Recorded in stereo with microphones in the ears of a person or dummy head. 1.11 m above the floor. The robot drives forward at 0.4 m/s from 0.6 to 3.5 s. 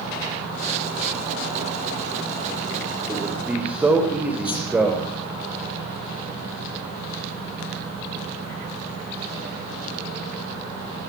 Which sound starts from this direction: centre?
A man speaking, at 3.1 s.